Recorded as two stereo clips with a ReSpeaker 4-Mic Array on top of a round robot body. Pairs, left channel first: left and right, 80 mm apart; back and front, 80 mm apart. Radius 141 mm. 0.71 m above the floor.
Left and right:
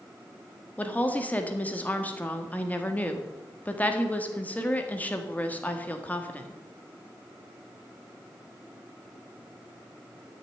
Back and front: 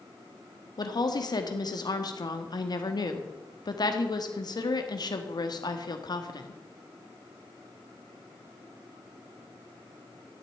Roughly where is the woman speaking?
Behind.